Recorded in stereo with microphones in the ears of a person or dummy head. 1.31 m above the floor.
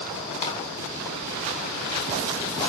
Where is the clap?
40° left (ahead or behind), 2.5 m.